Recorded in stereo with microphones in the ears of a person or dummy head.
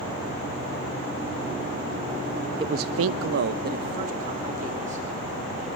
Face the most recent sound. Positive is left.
turn(degrees=-40)  # may be behind; listen again after turning